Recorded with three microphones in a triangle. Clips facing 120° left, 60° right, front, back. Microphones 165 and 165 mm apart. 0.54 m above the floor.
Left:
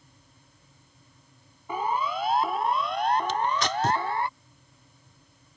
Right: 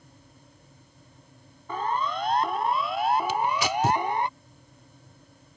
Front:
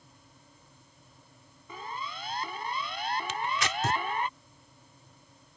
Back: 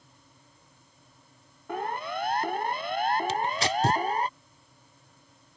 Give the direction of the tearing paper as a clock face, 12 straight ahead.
5 o'clock.